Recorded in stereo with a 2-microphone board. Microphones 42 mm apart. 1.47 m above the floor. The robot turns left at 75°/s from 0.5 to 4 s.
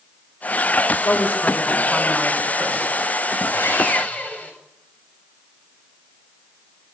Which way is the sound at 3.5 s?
75° left.